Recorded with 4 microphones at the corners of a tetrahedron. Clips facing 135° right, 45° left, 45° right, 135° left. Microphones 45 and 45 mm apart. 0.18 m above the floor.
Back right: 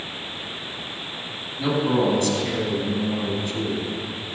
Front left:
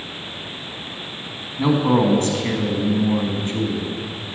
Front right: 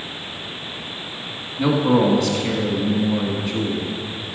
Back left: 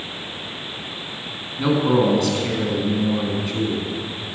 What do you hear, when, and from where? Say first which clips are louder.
1.6 s a man speaking: front left 4 dB, front right 1 dB; 40° left, 1.2 m